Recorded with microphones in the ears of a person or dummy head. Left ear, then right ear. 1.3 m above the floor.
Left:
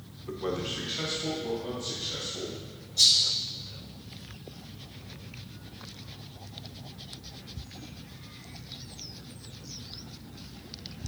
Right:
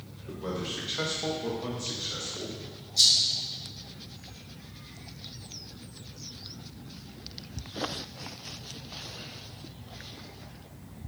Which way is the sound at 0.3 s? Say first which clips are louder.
Left 2 dB; 30° left (ahead or behind).